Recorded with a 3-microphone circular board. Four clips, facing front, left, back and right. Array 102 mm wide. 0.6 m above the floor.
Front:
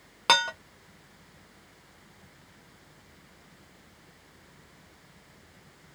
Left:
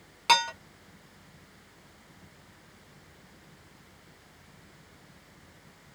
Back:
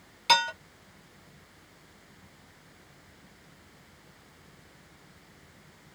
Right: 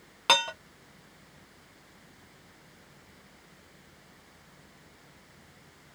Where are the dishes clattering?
15° right, 0.7 m.